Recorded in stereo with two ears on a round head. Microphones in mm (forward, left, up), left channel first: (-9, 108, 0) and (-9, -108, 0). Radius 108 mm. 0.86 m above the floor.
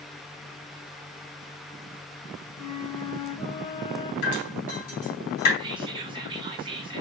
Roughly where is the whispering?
Centre.